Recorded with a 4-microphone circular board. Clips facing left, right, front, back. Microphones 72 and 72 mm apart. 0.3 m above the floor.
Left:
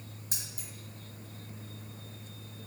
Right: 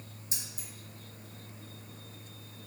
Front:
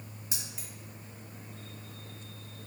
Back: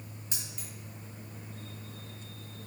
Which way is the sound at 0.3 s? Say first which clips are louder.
Right 1 dB, front 1 dB; 80° left.